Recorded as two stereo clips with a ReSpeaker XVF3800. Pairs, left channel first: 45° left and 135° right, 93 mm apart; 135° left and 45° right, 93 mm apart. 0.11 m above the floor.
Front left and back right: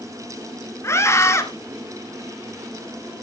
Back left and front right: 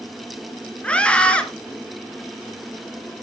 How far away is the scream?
About 1.3 m.